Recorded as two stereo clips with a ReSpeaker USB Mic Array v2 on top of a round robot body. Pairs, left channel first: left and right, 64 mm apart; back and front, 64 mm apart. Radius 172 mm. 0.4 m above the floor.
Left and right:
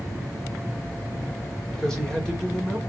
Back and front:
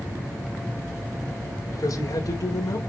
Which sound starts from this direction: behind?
A man speaking, at 1.7 s.